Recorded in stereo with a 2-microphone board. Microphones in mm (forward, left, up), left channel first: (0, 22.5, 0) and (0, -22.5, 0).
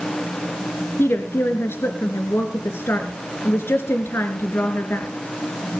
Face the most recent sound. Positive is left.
turn(degrees=65)  # may be behind; listen again after turning